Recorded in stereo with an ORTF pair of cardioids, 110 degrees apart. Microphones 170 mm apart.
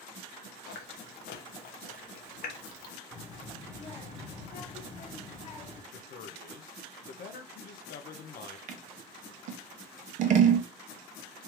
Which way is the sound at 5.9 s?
65° left.